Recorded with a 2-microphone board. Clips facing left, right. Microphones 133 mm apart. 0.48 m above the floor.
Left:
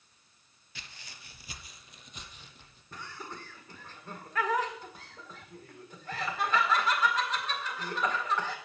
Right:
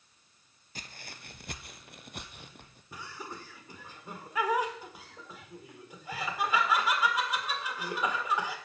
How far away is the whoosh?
No whoosh in this recording.